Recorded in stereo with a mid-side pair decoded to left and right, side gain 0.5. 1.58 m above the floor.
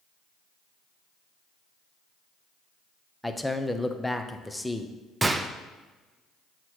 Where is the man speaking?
5° left, 0.7 m.